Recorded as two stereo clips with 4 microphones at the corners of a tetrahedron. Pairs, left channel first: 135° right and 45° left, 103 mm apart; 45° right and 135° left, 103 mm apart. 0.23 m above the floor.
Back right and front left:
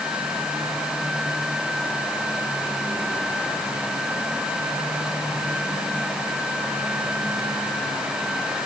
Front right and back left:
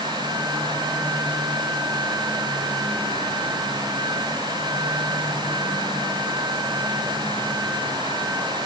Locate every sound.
Only background noise.